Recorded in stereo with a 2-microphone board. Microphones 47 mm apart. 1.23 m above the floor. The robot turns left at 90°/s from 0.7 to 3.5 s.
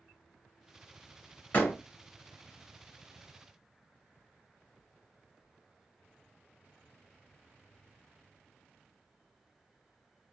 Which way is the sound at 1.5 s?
35° left (ahead or behind).